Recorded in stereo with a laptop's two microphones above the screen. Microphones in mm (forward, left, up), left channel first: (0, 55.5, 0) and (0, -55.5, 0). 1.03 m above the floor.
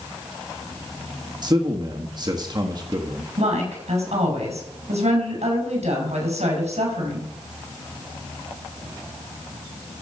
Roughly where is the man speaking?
Right.